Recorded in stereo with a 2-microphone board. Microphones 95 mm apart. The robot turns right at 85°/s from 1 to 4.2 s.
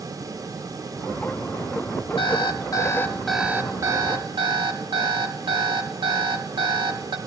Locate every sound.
2.2 s an alarm clock: 85° left, 1.2 m; by 7.2 s 105° right, 1.2 m